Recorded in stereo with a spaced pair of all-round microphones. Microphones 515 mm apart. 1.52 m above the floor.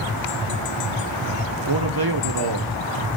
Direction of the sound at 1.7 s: 45° right (ahead or behind).